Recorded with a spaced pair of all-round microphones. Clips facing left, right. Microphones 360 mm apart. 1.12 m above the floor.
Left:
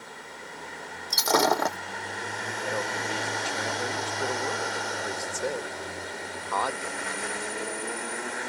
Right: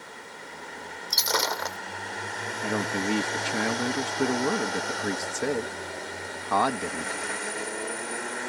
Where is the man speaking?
70° right (ahead or behind).